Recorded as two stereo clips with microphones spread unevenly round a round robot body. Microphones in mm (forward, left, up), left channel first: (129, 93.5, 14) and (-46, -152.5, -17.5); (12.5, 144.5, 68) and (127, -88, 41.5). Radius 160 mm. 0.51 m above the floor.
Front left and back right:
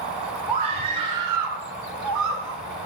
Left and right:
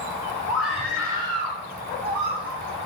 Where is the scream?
155° right, 3 m; by 2.6 s 95° right, 2.5 m.